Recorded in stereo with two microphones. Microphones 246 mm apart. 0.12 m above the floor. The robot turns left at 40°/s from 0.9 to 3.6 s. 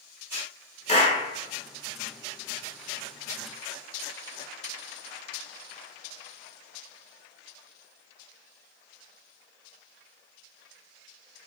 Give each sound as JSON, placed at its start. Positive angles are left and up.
{"t": 0.9, "sound": "a clap", "side_deg": 25, "distance_m": 1.0}